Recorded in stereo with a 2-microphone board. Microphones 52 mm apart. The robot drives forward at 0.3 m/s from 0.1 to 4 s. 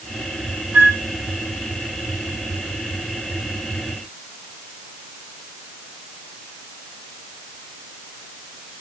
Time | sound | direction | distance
0.7 | a flute | 40° right (ahead or behind) | 0.8 m